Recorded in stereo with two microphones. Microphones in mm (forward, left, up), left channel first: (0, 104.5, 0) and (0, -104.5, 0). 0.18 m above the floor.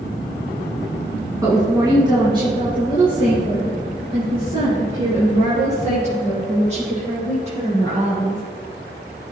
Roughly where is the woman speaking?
Centre.